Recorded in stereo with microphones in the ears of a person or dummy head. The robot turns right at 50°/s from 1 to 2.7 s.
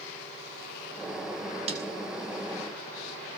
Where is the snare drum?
35° right (ahead or behind), 6 m; by 1.9 s 25° right (ahead or behind), 6 m.